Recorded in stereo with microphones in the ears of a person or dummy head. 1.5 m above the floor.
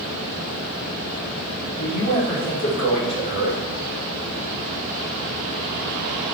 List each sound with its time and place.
1.8 s a man speaking: 35° left (ahead or behind), 1.9 m